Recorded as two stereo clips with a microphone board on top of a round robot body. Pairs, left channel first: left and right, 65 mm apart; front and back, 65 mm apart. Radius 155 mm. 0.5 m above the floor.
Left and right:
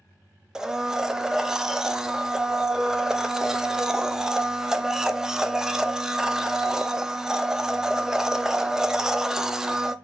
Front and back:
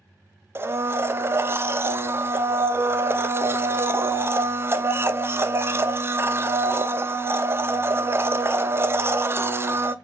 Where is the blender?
165° right, 0.6 m.